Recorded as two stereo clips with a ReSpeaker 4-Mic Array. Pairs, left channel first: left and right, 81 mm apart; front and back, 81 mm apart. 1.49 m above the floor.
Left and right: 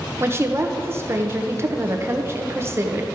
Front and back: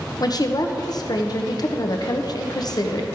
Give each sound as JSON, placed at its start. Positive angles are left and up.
{"t": 0.2, "sound": "a woman speaking", "azimuth_deg": -35, "distance_m": 0.8}